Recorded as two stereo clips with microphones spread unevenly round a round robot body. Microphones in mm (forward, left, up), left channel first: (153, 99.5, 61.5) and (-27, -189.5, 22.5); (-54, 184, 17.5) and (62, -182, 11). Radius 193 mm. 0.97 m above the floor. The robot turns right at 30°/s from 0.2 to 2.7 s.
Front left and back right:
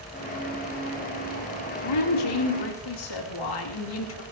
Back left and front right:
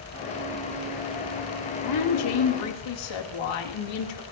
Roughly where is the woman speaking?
Ahead left.